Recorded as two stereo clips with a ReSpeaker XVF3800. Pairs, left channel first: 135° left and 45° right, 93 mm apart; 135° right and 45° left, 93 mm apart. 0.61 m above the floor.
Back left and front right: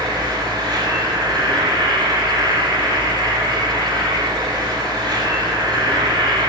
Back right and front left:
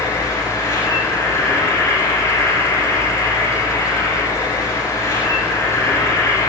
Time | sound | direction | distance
0.0 | an insect | 85° right | 9 m